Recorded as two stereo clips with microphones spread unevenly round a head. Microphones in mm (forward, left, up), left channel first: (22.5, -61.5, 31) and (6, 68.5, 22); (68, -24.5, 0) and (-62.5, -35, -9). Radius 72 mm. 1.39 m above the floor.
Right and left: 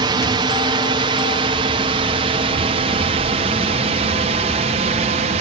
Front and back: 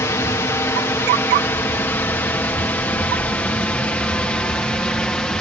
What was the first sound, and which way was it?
A drone, 65° left.